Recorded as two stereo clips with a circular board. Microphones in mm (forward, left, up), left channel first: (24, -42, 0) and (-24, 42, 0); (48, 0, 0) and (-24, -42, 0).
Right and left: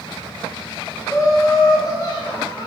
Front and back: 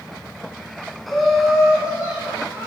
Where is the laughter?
55° right, 1.4 m; by 2.7 s 85° right, 2 m.